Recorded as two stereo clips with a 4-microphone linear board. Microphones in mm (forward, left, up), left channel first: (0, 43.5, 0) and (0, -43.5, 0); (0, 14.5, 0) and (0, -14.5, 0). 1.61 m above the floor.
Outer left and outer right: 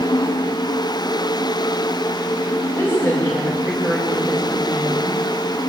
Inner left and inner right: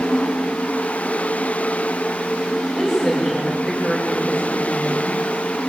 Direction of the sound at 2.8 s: 30° left (ahead or behind).